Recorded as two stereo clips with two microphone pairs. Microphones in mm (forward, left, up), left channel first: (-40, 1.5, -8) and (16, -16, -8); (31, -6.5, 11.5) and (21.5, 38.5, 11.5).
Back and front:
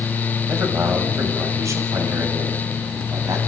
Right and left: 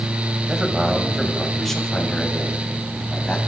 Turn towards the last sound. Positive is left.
turn(degrees=-15)